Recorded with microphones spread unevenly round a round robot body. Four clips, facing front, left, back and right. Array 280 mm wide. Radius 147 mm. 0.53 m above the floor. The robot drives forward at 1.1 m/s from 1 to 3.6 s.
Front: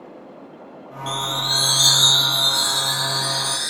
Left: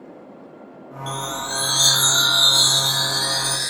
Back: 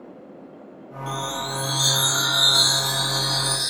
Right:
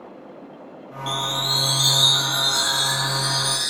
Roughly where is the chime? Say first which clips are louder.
Right 1 dB, front 2 dB; ahead left.